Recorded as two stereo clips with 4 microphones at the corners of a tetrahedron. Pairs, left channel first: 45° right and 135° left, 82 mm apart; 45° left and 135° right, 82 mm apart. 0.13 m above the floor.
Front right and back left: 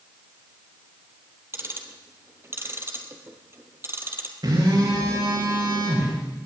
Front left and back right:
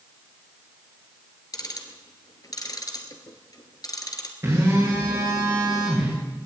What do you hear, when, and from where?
1.5 s ticking: 80° left, 1.7 m
4.4 s a phone buzzing: 170° left, 8 m